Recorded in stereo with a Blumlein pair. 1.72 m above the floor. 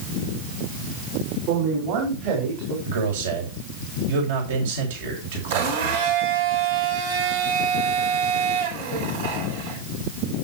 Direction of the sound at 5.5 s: 60° right.